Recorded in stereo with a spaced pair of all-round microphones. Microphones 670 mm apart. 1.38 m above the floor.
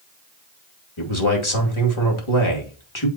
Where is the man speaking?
45° left (ahead or behind), 2.5 m.